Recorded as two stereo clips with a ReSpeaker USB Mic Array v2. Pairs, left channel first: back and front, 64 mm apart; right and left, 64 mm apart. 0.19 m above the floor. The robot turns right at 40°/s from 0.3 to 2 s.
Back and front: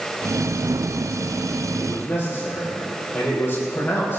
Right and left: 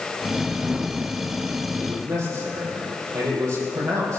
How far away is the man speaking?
About 6.5 m.